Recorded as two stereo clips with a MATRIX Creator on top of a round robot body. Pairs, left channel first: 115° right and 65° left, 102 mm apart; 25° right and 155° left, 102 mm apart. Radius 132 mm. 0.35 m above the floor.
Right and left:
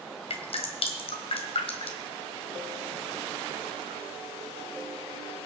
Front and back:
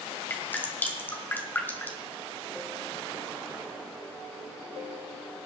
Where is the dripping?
95° right, 1.8 m.